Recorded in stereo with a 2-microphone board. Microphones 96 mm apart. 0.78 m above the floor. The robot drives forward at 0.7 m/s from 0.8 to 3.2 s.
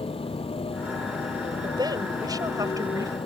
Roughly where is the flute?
I don't hear a flute.